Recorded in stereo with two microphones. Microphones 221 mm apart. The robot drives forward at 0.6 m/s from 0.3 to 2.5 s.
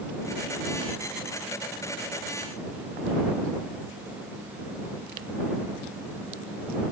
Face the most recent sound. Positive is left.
No sound to turn to.